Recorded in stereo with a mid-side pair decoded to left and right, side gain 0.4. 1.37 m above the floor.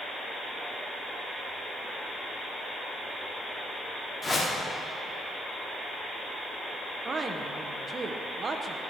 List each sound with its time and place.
4.2 s a whoosh: 25° left, 2.5 m
7.0 s a woman speaking: 40° right, 1.0 m